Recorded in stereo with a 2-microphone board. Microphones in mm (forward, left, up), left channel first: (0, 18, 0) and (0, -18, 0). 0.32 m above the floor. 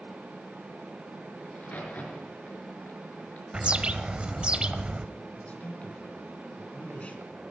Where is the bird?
30° right (ahead or behind), 0.6 m.